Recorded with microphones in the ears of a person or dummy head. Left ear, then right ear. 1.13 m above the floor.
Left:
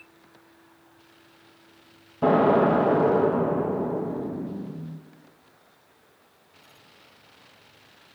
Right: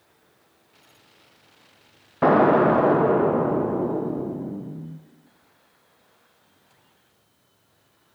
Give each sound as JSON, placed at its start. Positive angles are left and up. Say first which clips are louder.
{"t": 2.2, "sound": "an explosion", "louder": "right 3 dB", "side_deg": -60, "distance_m": 0.6}